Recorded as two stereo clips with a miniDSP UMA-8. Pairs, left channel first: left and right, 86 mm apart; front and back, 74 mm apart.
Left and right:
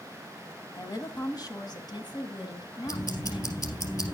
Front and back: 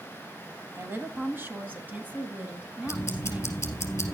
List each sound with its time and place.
0.8 s a woman speaking: 130° left, 1.9 m; by 3.7 s 105° left, 3 m
2.9 s ticking: 55° left, 3 m